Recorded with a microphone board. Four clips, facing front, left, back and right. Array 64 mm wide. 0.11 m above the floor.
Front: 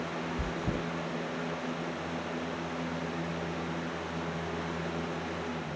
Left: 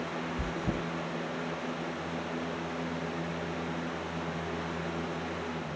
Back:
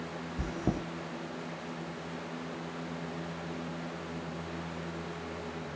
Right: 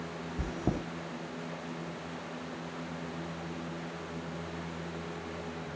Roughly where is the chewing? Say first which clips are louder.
Right 3 dB, back 5 dB; behind right.